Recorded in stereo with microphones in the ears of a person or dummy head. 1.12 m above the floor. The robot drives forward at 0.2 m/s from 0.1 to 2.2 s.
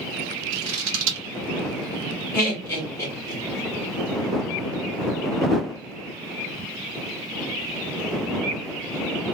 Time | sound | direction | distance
0.5 | scissors | 70° right (ahead or behind) | 0.9 m
2.3 | laughter | 20° left (ahead or behind) | 1.5 m